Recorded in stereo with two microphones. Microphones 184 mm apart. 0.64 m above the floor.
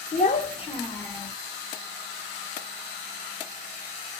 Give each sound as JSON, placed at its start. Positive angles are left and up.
{"t": 0.1, "sound": "a child speaking", "side_deg": 45, "distance_m": 1.0}